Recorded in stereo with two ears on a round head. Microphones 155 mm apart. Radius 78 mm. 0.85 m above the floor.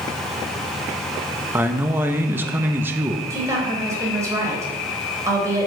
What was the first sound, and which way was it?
A man speaking, 10° right (ahead or behind).